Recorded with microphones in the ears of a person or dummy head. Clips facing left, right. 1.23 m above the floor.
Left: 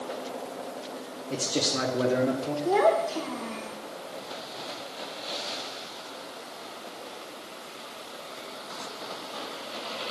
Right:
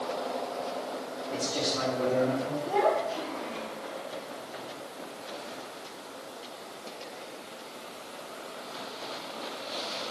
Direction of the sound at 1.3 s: 35° left (ahead or behind).